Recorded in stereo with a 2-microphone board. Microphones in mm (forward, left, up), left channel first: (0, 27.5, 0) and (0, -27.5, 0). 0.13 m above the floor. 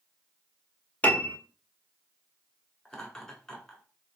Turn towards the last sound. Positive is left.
turn(degrees=10)  # may be behind; listen again after turning